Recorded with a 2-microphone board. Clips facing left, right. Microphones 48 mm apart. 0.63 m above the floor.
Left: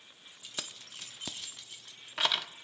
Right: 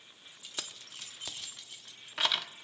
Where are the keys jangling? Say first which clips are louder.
Left 1 dB; 5° left (ahead or behind), 0.8 m.